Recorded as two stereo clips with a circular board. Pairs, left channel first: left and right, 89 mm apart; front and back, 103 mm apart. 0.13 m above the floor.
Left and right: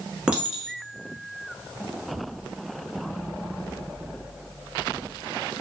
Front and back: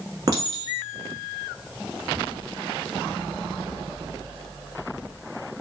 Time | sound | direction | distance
0.3 | a clink | 165° right | 0.9 m